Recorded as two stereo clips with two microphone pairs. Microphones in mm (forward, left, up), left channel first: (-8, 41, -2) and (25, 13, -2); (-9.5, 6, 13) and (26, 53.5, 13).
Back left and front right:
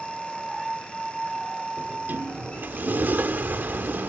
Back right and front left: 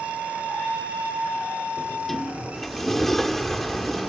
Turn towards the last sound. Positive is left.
turn(degrees=-40)